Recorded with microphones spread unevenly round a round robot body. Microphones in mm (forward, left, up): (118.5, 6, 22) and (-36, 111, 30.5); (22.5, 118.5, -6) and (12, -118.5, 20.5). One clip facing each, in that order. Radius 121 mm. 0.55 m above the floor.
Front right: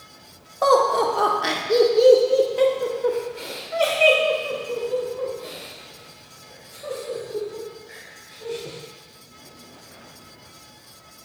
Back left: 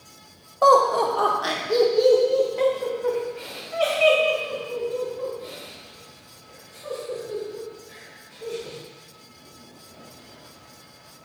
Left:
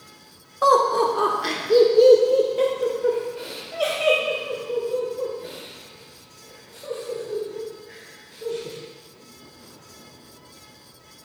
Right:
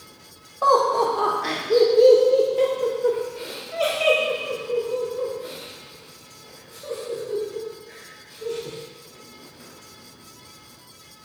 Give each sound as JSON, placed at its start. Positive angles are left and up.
{"t": 0.6, "sound": "laughter", "azimuth_deg": 50, "distance_m": 1.6}